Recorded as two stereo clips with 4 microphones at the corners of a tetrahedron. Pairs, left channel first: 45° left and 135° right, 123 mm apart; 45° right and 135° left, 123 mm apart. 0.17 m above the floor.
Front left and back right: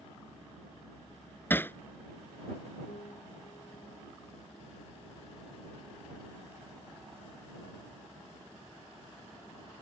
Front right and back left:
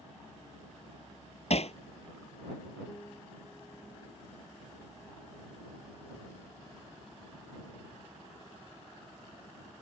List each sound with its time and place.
1.5 s hammering: 25° right
2.9 s a piano: 25° left